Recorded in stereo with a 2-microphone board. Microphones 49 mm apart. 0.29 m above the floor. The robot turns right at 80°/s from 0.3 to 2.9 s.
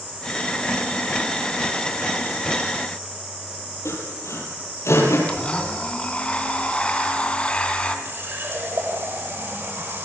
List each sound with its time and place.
3.9 s sawing: 75° left (ahead or behind), 7.5 m
5.3 s a blender: 25° left (ahead or behind), 3.5 m
8.1 s a running tap: 55° right (ahead or behind), 9.5 m